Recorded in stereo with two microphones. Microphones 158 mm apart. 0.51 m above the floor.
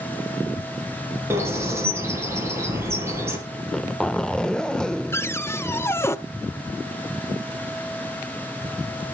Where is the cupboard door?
15° left (ahead or behind), 0.7 m.